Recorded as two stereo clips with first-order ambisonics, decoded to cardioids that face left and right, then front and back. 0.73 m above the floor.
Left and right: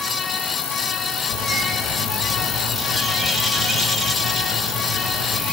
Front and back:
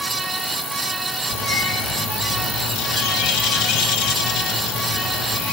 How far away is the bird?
About 1.0 m.